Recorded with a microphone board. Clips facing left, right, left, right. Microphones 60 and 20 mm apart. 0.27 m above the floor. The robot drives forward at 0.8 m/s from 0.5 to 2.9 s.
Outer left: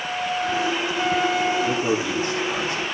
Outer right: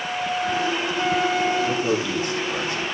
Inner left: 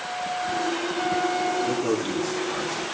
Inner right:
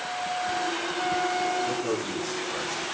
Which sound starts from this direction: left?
A man speaking, at 1.6 s.